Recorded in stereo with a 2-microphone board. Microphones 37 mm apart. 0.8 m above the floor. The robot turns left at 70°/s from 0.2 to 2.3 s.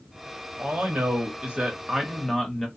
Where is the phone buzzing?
I don't hear a phone buzzing.